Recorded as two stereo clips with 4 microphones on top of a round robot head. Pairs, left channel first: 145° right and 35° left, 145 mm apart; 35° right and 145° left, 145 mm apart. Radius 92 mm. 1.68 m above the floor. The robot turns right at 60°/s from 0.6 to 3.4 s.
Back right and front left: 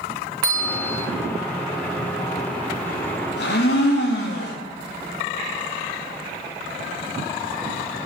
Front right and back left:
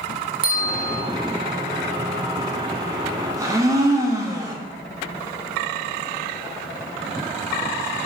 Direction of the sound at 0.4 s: 100° left.